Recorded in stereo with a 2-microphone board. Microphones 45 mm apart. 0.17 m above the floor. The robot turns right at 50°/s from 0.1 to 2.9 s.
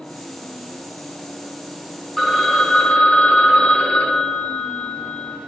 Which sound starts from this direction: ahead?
A phone ringing, at 2.2 s.